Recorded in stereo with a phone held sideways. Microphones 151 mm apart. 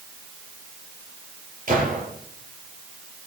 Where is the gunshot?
65° right (ahead or behind), 7.5 m.